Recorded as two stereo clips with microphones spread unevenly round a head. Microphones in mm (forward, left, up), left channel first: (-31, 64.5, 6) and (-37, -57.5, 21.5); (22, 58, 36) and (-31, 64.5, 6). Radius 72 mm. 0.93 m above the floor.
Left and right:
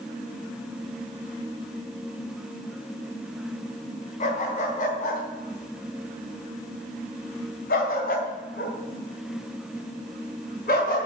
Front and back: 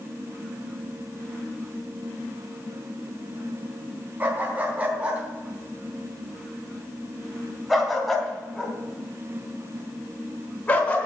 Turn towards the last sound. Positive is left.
turn(degrees=50)